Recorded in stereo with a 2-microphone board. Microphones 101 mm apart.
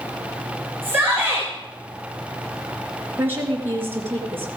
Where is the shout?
20° right (ahead or behind), 4 m.